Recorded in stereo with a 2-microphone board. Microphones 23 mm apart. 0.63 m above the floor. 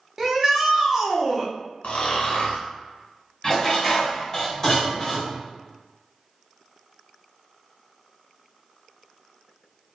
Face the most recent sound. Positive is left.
turn(degrees=20)  # may be behind; listen again after turning